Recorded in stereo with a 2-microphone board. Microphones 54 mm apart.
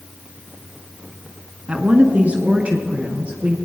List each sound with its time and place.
1.7 s a woman speaking: 25° right (ahead or behind), 1.3 m